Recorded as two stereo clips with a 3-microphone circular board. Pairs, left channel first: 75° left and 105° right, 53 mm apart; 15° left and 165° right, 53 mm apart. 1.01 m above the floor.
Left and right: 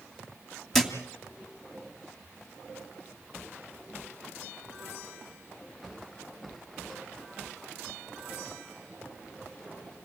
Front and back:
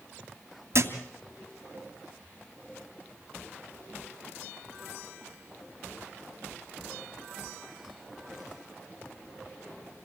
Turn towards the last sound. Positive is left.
turn(degrees=160)